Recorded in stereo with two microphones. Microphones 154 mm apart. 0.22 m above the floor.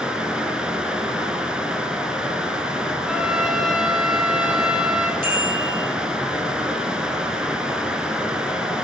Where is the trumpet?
5° right (ahead or behind), 3 m.